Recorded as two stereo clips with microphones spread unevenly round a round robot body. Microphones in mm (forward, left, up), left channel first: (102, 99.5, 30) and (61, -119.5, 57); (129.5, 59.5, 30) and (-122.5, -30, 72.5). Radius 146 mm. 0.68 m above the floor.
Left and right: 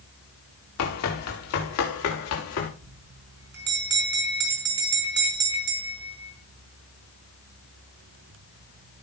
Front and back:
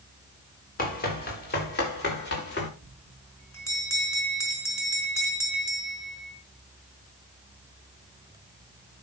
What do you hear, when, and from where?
0.8 s running footsteps: 80° left, 4.5 m; by 2.7 s 75° left, 6.5 m
2.8 s a bell: 60° right, 4.5 m